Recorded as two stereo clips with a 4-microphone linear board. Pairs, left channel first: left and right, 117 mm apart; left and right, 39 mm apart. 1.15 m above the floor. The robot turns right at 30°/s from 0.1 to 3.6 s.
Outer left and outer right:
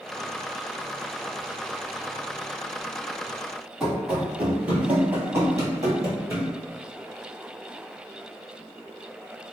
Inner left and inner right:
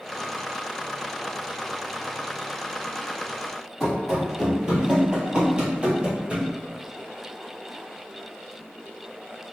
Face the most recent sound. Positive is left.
turn(degrees=-30)  # may be behind; listen again after turning